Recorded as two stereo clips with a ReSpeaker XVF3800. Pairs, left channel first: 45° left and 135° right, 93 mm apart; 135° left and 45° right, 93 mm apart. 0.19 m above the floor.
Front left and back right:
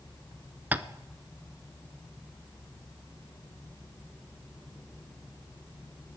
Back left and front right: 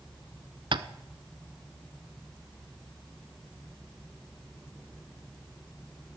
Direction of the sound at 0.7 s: 65° right.